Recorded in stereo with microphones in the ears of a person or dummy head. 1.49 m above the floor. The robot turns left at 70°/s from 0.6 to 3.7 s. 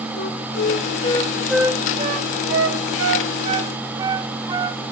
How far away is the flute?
About 1.0 m.